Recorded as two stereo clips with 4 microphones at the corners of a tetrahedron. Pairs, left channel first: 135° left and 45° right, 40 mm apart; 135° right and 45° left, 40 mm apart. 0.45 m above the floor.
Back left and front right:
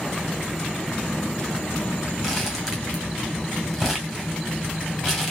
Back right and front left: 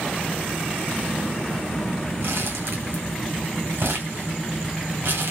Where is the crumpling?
35° left, 2 m.